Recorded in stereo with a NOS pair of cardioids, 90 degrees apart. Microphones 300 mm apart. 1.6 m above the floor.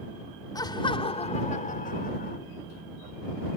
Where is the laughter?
10° left; by 2.4 s 30° left.